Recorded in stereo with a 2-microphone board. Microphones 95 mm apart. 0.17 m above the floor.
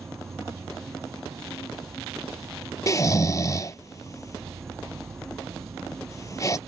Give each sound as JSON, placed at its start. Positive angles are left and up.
{"t": 0.0, "sound": "an insect", "side_deg": -25}
{"t": 2.9, "sound": "snoring", "side_deg": 35}